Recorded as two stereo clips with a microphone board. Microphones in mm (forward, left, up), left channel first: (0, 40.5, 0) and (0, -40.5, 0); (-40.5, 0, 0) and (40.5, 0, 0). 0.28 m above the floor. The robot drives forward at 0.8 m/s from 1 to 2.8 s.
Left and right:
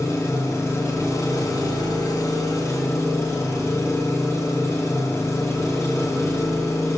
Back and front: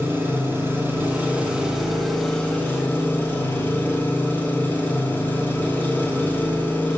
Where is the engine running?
55° left, 1.6 m; by 7.0 s 125° left, 1.6 m.